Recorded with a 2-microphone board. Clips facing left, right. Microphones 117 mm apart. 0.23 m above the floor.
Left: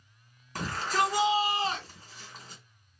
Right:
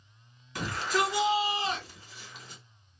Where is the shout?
40° left (ahead or behind), 2.0 m.